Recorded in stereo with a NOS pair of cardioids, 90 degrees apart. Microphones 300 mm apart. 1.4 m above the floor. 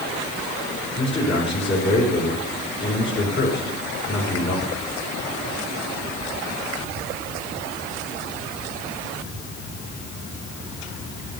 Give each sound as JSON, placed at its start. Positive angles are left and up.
{"t": 1.0, "sound": "a man speaking", "azimuth_deg": 40, "distance_m": 5.0}